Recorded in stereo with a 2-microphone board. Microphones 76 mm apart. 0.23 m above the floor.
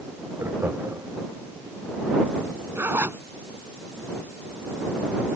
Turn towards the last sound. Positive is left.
turn(degrees=-30)  # may be behind; listen again after turning